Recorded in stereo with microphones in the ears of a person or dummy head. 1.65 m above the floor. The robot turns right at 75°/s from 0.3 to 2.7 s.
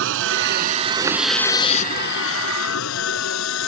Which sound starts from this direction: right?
A vehicle, at 0.0 s.